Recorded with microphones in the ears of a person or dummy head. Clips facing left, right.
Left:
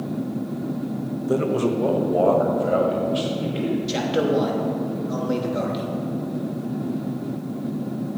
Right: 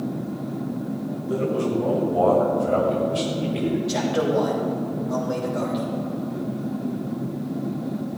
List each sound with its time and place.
1.3 s a man speaking: 65° left (ahead or behind), 1.4 m; by 3.8 s 5° left (ahead or behind), 3 m
3.9 s a man speaking: 35° left (ahead or behind), 3 m